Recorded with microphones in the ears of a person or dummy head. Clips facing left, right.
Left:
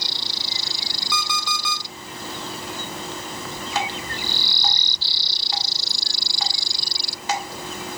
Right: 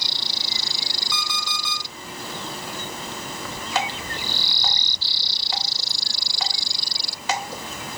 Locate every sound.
1.1 s an alarm clock: 50° left (ahead or behind), 1.3 m
3.8 s dripping: 70° right (ahead or behind), 1.8 m